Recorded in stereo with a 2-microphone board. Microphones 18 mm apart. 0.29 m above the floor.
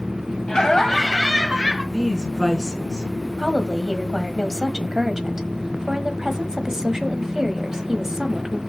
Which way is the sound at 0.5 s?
35° left (ahead or behind).